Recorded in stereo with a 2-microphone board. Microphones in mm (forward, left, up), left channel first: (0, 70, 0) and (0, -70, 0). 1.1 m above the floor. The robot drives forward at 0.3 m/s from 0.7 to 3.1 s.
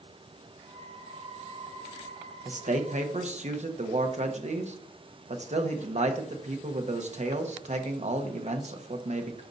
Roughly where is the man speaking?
Right.